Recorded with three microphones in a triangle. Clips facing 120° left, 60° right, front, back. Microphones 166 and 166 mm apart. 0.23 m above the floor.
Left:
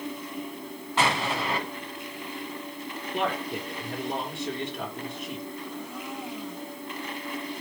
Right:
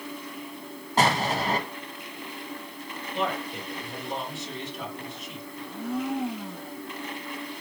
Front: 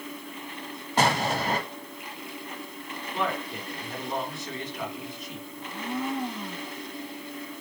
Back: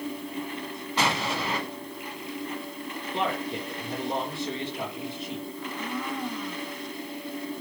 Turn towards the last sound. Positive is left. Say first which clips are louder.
# right 6 dB, front 6 dB
turn(degrees=-65)